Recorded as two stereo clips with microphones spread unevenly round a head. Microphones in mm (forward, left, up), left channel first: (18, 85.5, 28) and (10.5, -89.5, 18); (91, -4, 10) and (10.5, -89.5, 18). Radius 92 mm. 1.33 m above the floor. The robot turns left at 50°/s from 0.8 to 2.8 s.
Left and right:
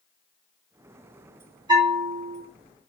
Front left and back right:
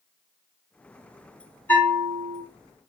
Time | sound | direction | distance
1.7 | a bell | 25° right | 3 m